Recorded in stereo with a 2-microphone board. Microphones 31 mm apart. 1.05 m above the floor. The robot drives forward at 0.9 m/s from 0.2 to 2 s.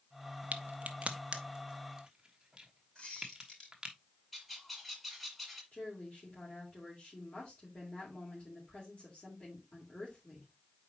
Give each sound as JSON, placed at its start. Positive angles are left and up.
{"t": 0.5, "sound": "a crack", "side_deg": -55, "distance_m": 0.7}
{"t": 3.0, "sound": "a squeak", "side_deg": 30, "distance_m": 4.0}
{"t": 4.3, "sound": "a bird", "side_deg": 5, "distance_m": 1.9}
{"t": 5.7, "sound": "a woman speaking", "side_deg": 45, "distance_m": 3.0}